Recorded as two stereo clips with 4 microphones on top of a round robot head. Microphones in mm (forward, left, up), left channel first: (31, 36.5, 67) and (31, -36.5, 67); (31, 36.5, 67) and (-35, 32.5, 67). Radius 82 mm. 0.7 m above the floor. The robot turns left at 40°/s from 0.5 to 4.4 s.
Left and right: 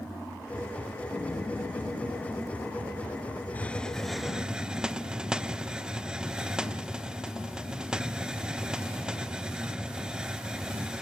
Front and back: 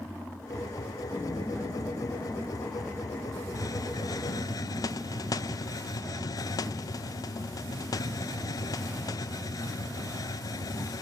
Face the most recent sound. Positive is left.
turn(degrees=-10)